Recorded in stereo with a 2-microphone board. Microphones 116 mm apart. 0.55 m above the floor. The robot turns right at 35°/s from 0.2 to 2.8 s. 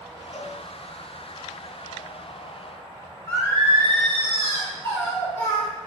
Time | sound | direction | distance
0.3 | a cowbell | 20° left (ahead or behind) | 0.7 m
3.3 | singing | 20° left (ahead or behind) | 1.4 m